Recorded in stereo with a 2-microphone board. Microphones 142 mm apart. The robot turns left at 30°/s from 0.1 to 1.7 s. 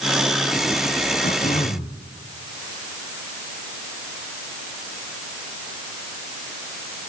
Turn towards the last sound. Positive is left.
turn(degrees=50)  # may be behind; listen again after turning